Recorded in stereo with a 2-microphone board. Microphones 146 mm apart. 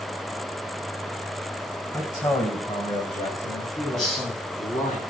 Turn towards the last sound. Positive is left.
turn(degrees=0)  # may be behind; listen again after turning